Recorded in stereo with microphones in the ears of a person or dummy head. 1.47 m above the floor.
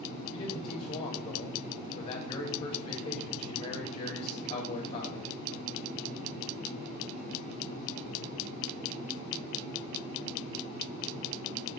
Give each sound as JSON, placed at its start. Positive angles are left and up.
{"t": 0.3, "sound": "a man speaking", "side_deg": 30, "distance_m": 3.5}